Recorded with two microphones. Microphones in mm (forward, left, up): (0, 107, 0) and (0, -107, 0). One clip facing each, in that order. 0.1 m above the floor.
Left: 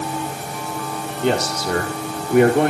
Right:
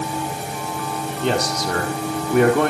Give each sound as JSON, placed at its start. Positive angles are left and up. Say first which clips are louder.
{"t": 1.2, "sound": "a man speaking", "louder": "left 2 dB", "side_deg": 5, "distance_m": 2.5}